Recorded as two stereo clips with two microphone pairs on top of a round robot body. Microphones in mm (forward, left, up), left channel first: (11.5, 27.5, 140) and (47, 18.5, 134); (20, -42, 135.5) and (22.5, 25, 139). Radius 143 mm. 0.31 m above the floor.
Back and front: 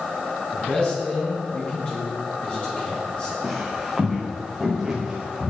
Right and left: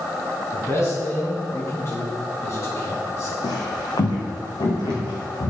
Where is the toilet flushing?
No toilet flushing in this recording.